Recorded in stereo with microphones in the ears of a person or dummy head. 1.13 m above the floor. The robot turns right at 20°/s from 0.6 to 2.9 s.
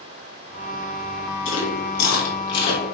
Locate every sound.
1.4 s chewing: 40° left (ahead or behind), 3 m; by 2.8 s 65° left (ahead or behind), 3 m